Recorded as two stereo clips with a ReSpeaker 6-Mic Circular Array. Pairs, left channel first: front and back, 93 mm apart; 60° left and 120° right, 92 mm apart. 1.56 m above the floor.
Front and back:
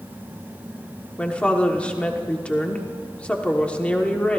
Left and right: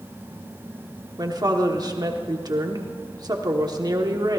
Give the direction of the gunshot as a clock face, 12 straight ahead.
No gunshot in this recording.